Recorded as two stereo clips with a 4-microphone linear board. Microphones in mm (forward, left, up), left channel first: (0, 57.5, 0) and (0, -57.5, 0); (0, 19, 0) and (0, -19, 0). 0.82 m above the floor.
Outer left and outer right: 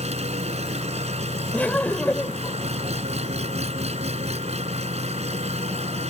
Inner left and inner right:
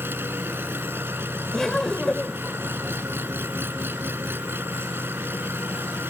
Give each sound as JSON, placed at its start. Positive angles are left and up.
{"t": 0.0, "sound": "an engine running", "side_deg": -70}
{"t": 1.5, "sound": "laughter", "side_deg": 15}